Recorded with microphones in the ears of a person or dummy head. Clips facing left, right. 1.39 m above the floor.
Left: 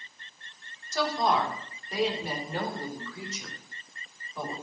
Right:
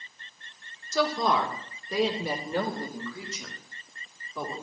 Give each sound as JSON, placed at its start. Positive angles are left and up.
{"t": 0.9, "sound": "a woman speaking", "side_deg": -75, "distance_m": 3.5}